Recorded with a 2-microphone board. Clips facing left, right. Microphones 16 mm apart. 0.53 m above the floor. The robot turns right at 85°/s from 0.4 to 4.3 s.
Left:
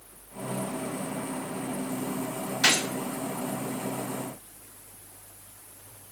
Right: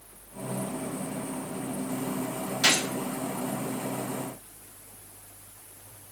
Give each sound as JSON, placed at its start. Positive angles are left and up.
{"t": 2.6, "sound": "a gunshot", "side_deg": 55, "distance_m": 1.9}